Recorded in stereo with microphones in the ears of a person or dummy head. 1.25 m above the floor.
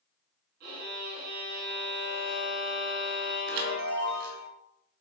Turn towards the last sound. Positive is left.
turn(degrees=-55)  # may be behind; listen again after turning